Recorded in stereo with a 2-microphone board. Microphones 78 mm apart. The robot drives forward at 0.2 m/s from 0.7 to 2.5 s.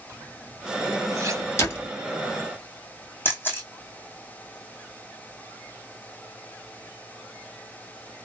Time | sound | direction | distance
0.1 | a zipper | 40° right (ahead or behind) | 2.5 m
1.6 | a door slam | 35° left (ahead or behind) | 1.8 m
3.2 | a camera shutter | 30° left (ahead or behind) | 2 m